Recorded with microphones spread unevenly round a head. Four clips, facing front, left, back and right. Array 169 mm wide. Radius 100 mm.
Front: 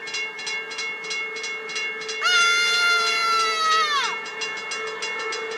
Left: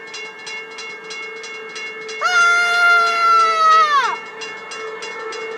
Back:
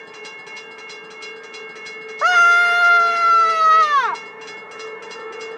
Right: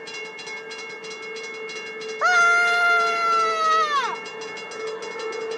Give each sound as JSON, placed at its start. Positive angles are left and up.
{"t": 2.2, "sound": "a scream", "azimuth_deg": 145}